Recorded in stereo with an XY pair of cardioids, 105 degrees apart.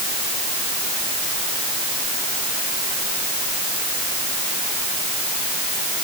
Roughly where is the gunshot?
No gunshot in this recording.